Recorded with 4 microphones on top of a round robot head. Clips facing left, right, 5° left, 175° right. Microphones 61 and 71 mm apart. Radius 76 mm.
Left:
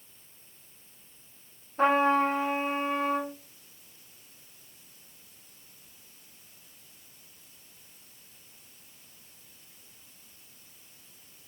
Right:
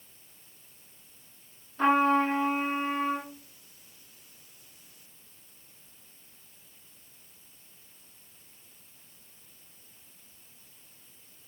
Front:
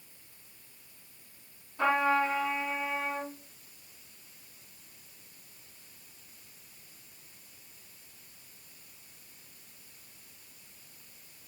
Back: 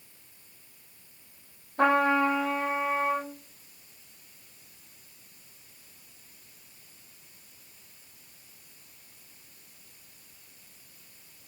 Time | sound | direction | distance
1.8 | a trumpet | 150° left | 7 m